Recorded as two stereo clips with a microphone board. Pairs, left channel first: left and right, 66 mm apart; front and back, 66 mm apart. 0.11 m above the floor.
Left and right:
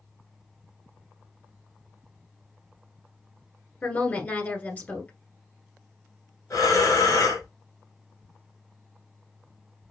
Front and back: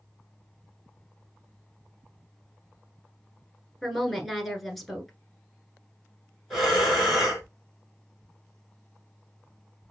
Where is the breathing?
90° left, 2.5 m.